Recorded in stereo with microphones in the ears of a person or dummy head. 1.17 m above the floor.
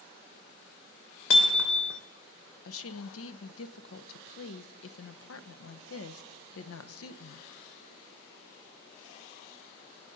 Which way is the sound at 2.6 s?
70° left (ahead or behind).